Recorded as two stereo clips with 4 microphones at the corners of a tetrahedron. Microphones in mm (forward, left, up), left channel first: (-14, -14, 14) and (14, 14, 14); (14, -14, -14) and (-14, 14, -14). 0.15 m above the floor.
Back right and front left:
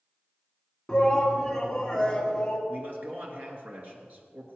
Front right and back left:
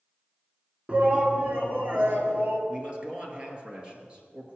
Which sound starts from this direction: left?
A man speaking, at 2.7 s.